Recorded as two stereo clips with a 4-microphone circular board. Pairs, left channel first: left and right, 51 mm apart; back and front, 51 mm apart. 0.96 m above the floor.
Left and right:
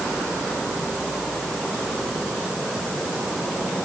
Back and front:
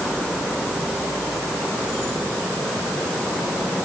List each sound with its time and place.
Only background noise.